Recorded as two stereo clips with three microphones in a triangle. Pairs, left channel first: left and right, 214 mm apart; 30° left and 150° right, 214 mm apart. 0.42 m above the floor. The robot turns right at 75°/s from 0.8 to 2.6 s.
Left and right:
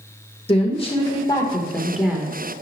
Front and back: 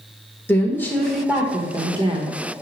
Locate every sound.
0.5 s a woman speaking: 95° left, 1.2 m; by 2.4 s 145° right, 1.2 m